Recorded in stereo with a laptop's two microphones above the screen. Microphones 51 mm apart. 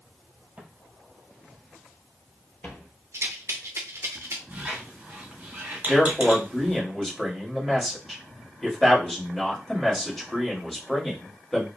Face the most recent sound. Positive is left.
turn(degrees=5)  # may be behind; listen again after turning